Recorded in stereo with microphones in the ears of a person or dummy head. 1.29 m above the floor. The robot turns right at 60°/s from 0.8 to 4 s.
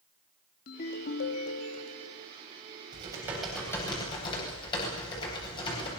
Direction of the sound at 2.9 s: 35° right.